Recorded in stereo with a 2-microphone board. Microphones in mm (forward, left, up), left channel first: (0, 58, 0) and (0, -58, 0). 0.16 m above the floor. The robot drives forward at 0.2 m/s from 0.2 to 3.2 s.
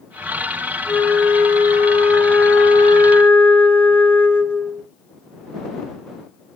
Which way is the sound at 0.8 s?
20° left (ahead or behind).